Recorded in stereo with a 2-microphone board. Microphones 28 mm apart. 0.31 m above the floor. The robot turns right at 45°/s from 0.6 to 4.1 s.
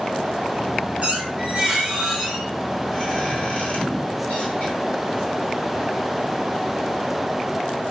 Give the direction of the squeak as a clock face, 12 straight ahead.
2 o'clock.